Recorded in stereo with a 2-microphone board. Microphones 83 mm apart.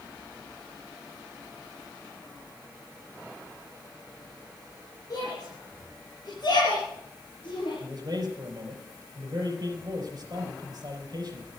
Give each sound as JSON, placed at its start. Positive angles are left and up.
{"t": 5.1, "sound": "a shout", "side_deg": 45, "distance_m": 6.0}
{"t": 7.8, "sound": "a man speaking", "side_deg": -40, "distance_m": 4.5}